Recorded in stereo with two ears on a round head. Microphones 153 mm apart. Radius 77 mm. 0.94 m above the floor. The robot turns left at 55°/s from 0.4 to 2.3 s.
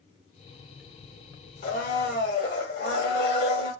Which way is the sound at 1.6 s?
125° left.